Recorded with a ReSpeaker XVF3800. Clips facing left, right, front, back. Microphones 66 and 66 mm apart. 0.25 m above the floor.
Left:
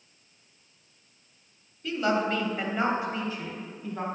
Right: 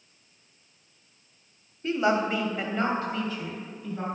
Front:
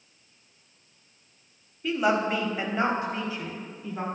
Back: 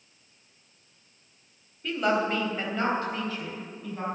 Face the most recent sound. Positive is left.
turn(degrees=60)